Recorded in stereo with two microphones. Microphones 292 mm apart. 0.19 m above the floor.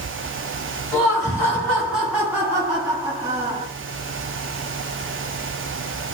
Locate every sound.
0.9 s laughter: 15° left (ahead or behind), 1.4 m; by 3.7 s 25° right (ahead or behind), 2.0 m